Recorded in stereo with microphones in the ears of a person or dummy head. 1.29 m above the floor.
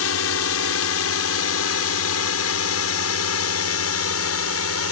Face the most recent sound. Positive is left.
turn(degrees=75)  # may be behind; listen again after turning